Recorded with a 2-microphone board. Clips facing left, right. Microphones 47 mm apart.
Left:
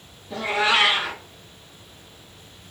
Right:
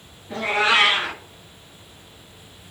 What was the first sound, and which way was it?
A cat meowing, 45° right (ahead or behind).